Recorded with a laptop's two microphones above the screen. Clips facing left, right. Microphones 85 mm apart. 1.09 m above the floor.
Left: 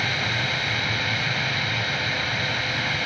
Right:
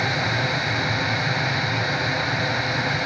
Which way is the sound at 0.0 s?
20° right (ahead or behind).